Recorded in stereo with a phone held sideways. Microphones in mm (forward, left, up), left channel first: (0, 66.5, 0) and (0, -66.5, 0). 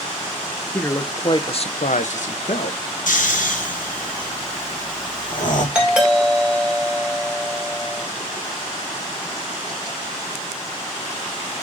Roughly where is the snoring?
Left.